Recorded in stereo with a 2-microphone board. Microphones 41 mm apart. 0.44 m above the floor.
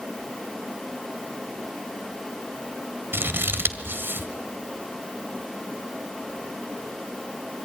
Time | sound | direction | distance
3.1 | scissors | 65° right (ahead or behind) | 1.6 m